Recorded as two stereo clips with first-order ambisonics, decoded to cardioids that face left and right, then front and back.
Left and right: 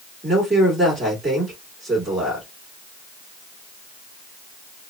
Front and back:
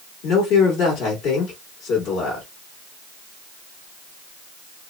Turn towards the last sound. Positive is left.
turn(degrees=-15)